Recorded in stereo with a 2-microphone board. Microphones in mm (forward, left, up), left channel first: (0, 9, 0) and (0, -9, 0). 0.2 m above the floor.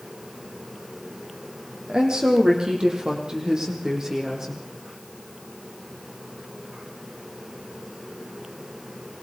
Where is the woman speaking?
55° right (ahead or behind), 6.5 m; by 4.6 s 30° right (ahead or behind), 7 m.